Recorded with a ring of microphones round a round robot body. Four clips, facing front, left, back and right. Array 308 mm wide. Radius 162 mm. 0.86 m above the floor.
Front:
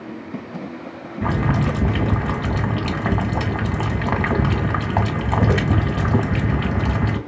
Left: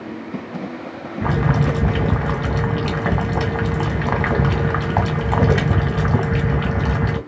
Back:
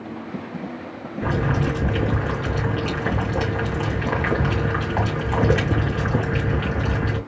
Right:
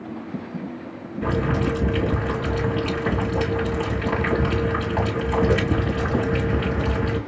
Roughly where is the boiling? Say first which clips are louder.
Left 3 dB, front 2 dB; ahead left.